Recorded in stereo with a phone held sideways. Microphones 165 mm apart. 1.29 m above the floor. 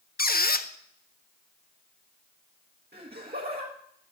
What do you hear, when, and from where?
0.2 s a squeak: 65° left (ahead or behind), 0.6 m
2.9 s laughter: 70° right (ahead or behind), 1.6 m